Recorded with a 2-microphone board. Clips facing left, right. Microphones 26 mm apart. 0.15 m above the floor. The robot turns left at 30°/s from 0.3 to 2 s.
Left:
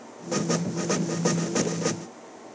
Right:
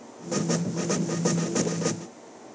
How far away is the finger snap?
No finger snap in this recording.